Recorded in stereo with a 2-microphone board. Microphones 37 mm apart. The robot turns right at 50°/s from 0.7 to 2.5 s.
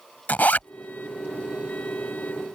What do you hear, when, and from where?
0.3 s a zipper: 50° left (ahead or behind)